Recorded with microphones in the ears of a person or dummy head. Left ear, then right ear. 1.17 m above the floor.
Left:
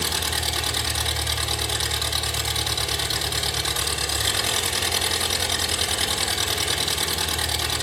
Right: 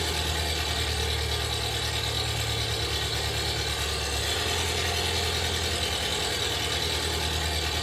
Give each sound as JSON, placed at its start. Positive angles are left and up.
{"t": 0.0, "sound": "an engine running", "side_deg": 75, "distance_m": 1.7}